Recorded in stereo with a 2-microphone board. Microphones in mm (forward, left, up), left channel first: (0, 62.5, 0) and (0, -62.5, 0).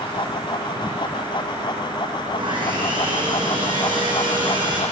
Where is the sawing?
40° right (ahead or behind), 5.5 m.